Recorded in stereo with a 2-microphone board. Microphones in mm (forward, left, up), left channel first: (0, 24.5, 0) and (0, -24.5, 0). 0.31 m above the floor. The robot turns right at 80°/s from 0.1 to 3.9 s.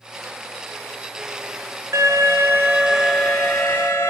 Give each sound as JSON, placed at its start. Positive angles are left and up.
{"t": 1.9, "sound": "an alarm", "azimuth_deg": -90, "distance_m": 3.5}